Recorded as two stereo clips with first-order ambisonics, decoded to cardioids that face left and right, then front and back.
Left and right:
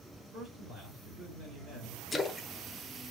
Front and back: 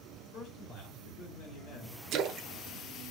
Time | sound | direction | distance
0.3 | a man speaking | 25° right | 2.5 m
2.1 | a splash | 165° left | 0.5 m